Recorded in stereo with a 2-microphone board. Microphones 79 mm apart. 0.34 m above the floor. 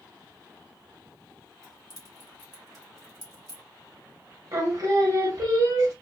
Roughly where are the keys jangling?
Right.